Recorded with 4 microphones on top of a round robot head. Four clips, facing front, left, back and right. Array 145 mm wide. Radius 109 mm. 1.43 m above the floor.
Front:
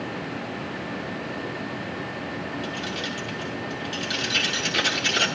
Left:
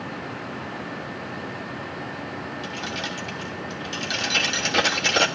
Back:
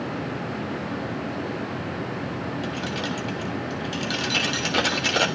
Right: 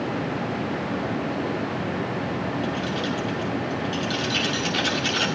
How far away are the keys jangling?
About 1.2 m.